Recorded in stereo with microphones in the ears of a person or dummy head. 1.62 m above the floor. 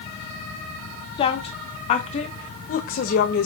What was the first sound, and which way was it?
A woman speaking, 30° left (ahead or behind).